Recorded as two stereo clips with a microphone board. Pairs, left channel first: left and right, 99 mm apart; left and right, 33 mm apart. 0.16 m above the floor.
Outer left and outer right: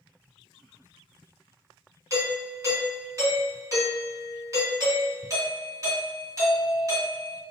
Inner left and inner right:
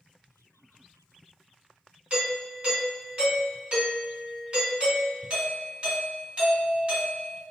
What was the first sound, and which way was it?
A doorbell, 30° right (ahead or behind).